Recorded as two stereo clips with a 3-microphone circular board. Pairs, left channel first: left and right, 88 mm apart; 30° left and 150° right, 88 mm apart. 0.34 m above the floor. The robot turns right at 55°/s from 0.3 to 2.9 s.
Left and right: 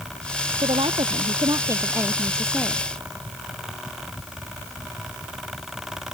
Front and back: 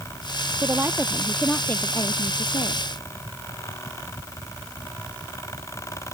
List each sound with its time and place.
0.6 s a woman speaking: 95° right; by 2.8 s 25° left